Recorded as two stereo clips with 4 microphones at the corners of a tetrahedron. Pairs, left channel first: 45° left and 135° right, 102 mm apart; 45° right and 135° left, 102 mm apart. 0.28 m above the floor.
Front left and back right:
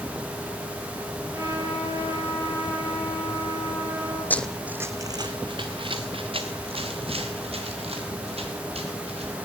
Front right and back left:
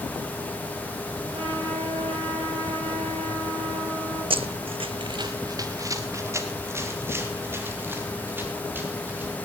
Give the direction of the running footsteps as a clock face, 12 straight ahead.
8 o'clock.